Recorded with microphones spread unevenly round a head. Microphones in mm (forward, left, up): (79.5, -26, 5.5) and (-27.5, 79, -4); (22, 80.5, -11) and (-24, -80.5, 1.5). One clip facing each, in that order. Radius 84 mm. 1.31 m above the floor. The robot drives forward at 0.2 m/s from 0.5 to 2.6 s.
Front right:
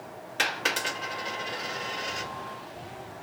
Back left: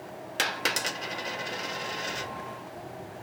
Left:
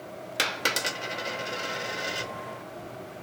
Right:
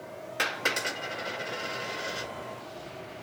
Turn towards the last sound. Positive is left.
turn(degrees=135)